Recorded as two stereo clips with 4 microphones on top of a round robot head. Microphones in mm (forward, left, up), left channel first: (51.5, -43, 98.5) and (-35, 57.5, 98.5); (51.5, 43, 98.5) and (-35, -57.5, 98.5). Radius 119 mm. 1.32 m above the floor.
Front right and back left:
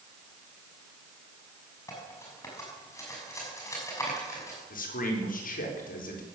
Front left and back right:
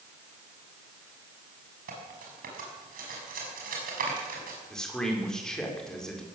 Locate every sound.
1.9 s cutlery clinking: 115° right, 6.5 m
4.7 s a man speaking: 35° right, 5 m